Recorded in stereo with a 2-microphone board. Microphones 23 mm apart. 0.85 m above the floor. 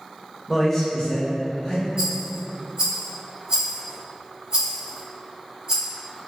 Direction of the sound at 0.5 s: 5° left (ahead or behind).